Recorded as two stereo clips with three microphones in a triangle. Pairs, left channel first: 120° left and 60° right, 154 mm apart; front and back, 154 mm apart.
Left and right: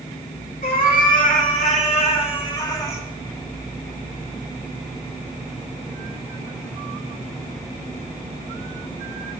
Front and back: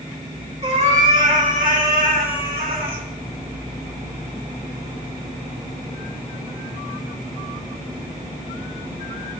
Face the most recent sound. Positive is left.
turn(degrees=-170)